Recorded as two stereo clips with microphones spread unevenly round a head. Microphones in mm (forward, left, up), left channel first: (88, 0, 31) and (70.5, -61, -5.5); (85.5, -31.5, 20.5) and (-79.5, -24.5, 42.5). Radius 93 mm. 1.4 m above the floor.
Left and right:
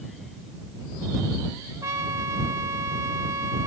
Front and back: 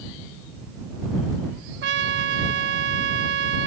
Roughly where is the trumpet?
Behind.